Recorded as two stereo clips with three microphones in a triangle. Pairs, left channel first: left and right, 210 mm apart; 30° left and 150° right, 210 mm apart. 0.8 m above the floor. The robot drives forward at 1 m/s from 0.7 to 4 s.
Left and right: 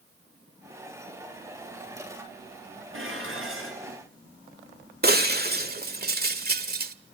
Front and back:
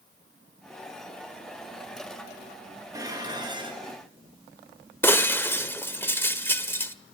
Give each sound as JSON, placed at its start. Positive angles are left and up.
{"t": 2.9, "sound": "dishes clattering", "azimuth_deg": -75, "distance_m": 6.5}
{"t": 5.0, "sound": "breaking glass", "azimuth_deg": -50, "distance_m": 1.5}